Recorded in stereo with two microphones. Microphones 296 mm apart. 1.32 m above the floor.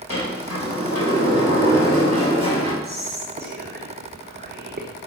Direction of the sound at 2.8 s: 35° right (ahead or behind).